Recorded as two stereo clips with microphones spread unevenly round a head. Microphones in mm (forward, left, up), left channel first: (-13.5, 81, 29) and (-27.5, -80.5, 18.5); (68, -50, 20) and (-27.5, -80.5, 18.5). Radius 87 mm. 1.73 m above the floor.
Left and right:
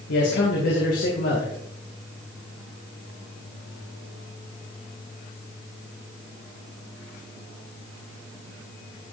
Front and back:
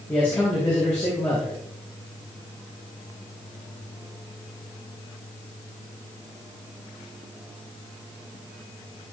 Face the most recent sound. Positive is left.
turn(degrees=95)